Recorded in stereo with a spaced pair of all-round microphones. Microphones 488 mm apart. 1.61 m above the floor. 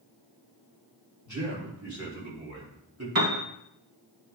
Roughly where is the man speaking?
Right.